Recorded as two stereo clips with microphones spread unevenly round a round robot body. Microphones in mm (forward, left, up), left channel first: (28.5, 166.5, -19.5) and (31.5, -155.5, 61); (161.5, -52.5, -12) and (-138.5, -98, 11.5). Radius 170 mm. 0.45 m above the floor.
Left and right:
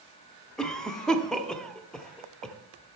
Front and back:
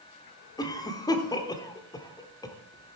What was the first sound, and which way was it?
A cough, 50° left.